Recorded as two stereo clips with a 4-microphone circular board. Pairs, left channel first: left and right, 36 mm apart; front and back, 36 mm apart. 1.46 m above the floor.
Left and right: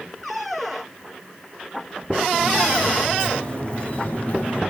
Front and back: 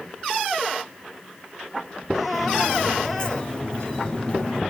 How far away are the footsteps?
About 1.7 m.